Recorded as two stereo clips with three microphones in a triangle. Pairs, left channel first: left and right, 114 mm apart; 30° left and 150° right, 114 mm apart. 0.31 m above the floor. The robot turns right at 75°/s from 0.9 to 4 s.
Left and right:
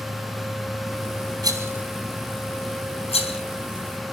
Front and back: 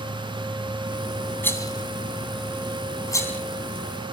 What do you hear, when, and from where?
1.4 s a rattle: 40° right, 3.5 m; by 3.4 s 105° left, 3.5 m